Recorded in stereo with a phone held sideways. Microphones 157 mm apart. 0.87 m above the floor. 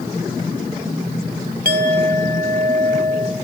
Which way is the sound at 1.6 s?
70° right (ahead or behind).